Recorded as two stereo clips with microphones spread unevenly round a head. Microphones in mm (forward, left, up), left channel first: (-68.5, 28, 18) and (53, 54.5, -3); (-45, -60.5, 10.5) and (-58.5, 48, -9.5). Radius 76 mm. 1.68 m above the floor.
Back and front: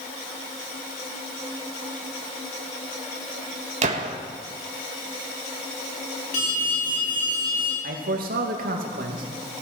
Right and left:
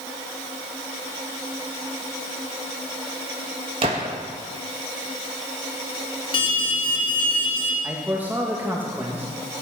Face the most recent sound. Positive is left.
turn(degrees=15)